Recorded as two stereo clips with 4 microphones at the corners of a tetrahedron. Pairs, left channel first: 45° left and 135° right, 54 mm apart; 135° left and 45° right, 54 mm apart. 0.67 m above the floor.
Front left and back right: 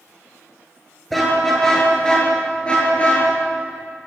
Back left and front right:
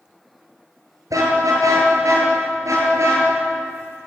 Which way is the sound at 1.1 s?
40° right.